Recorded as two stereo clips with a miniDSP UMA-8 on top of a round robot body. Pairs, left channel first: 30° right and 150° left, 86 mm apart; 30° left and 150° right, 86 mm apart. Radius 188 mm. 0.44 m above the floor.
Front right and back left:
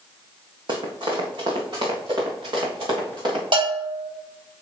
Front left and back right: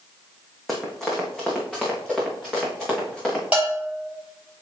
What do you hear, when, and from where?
0.7 s running footsteps: 120° left, 1.7 m
3.5 s a bell: 135° left, 4 m